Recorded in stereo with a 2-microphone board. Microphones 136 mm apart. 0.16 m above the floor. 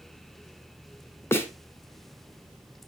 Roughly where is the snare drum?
Centre.